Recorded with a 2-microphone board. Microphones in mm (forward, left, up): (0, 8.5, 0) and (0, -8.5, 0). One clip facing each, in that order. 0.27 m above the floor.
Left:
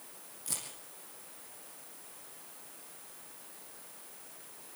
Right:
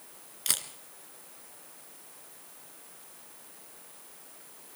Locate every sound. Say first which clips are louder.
0.5 s a camera shutter: right 9 dB; 75° right (ahead or behind), 2.5 m